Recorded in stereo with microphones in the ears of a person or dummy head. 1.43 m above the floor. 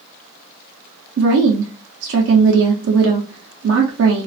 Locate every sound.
1.2 s a woman speaking: 65° right (ahead or behind), 0.6 m